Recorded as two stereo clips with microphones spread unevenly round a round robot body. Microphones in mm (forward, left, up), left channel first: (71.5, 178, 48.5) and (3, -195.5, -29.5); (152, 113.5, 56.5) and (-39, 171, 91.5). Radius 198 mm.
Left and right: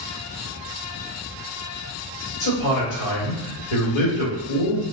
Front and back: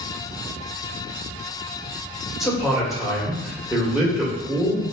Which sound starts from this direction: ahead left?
A man speaking, at 2.4 s.